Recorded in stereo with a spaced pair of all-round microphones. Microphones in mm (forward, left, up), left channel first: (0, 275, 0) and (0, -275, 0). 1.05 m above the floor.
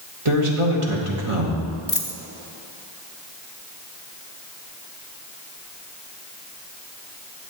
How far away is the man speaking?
About 1.6 m.